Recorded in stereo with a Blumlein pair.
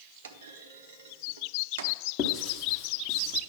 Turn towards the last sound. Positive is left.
turn(degrees=35)